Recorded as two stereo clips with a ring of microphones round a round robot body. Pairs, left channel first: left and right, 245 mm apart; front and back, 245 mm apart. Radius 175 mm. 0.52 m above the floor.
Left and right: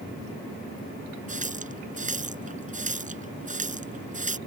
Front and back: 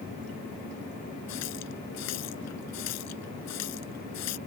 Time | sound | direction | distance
1.3 | a running tap | 35° right | ?